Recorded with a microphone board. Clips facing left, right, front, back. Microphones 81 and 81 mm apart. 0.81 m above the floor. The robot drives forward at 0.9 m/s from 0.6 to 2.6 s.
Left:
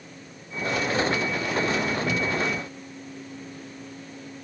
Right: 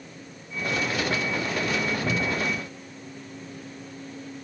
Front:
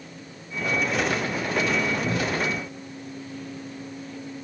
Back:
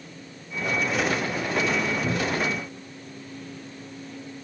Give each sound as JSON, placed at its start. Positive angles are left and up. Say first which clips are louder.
{"t": 2.0, "sound": "a cupboard door", "louder": "left 1 dB, even", "azimuth_deg": -140, "distance_m": 0.8}